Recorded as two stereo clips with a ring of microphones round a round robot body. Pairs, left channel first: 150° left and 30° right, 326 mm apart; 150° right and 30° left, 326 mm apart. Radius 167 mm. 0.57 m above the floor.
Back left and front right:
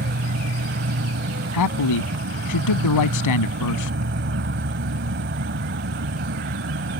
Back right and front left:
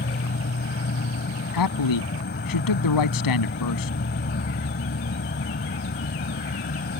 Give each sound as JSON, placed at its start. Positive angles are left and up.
{"t": 0.0, "sound": "an insect", "azimuth_deg": -90}
{"t": 1.5, "sound": "a man speaking", "azimuth_deg": -175}